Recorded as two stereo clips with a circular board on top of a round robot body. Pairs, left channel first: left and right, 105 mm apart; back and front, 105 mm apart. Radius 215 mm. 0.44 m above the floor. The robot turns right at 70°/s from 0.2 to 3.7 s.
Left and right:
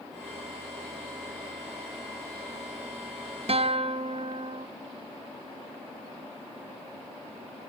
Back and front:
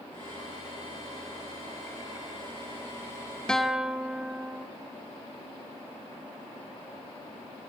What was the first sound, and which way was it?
A guitar, 95° right.